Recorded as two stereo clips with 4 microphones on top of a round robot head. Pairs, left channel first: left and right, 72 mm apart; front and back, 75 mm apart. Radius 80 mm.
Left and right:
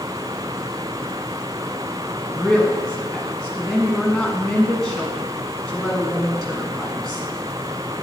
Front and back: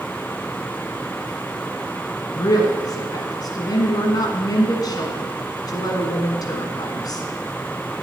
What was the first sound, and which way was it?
A woman speaking, 5° right.